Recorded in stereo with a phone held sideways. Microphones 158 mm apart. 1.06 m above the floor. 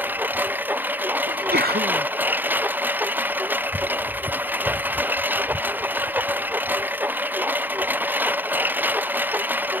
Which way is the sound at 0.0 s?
10° right (ahead or behind).